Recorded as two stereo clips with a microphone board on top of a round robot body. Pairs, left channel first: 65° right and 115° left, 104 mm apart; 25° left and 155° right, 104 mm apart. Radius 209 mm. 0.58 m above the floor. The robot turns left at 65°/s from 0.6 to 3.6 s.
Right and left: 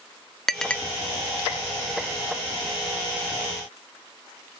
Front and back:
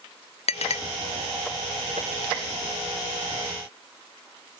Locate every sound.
0.5 s a clink: 20° left, 0.7 m; by 0.8 s 5° left, 0.7 m